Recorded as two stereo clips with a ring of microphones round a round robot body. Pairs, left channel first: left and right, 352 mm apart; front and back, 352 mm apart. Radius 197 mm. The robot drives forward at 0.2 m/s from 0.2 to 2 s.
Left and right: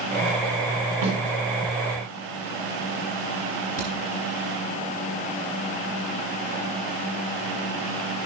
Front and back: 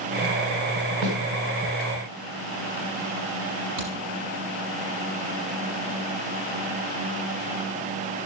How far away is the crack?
About 6 m.